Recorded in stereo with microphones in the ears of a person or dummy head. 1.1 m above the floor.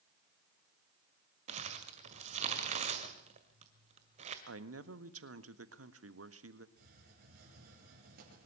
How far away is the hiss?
About 6 m.